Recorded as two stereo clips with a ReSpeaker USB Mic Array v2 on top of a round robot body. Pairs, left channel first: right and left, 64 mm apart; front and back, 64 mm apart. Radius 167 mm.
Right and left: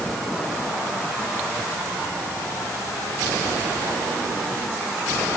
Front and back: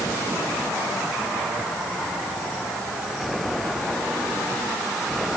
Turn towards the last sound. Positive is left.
No sound to turn to.